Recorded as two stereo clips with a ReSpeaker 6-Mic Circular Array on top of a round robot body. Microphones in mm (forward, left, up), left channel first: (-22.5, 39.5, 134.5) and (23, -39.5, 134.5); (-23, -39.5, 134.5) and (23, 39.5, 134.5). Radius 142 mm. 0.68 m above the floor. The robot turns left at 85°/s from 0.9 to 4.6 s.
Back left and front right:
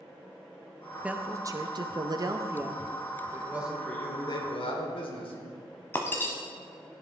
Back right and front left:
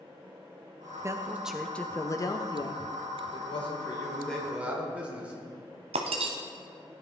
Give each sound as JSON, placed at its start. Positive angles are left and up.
{"t": 1.0, "sound": "a woman speaking", "azimuth_deg": 15, "distance_m": 0.9}
{"t": 3.2, "sound": "a man speaking", "azimuth_deg": -110, "distance_m": 2.5}
{"t": 5.9, "sound": "breaking glass", "azimuth_deg": 50, "distance_m": 0.7}